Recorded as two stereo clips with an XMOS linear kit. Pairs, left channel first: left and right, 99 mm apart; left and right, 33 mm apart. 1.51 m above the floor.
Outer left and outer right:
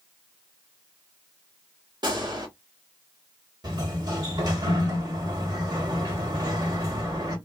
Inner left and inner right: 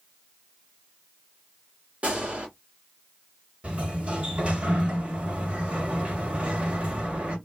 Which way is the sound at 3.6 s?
45° right (ahead or behind).